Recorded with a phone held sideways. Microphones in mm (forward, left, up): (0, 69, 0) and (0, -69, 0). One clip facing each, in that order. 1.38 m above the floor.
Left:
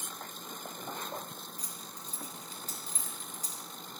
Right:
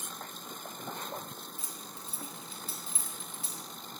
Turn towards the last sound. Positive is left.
turn(degrees=40)  # may be behind; listen again after turning